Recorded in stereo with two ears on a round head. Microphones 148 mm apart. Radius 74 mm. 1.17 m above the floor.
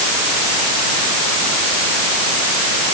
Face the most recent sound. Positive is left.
No sound to turn to.